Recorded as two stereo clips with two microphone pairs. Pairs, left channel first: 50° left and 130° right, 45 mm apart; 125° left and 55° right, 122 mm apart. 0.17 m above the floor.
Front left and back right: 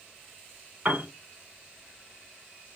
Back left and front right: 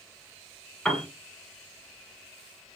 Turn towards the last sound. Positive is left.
turn(degrees=-150)